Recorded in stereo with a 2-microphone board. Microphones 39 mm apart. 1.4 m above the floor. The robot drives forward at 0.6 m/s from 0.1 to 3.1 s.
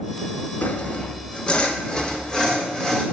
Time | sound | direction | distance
0.6 | sawing | 45° left (ahead or behind) | 0.6 m